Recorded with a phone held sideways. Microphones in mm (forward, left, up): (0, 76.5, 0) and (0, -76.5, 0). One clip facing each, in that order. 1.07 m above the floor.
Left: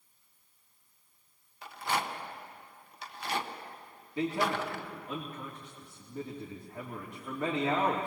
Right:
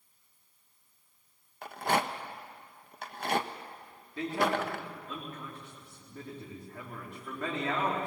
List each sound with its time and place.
1.6 s a rattle: 55° right (ahead or behind), 0.9 m
4.2 s a man speaking: 20° left (ahead or behind), 2.5 m